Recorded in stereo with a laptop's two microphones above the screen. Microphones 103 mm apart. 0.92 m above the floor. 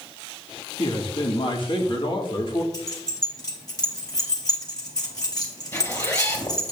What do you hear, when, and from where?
0.8 s a man speaking: 50° left (ahead or behind), 2 m
2.7 s keys jangling: 40° left (ahead or behind), 3 m
5.7 s a zipper: 30° left (ahead or behind), 3.5 m